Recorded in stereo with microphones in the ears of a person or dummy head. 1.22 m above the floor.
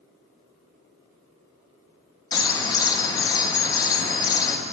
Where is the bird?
20° left (ahead or behind), 1.3 m.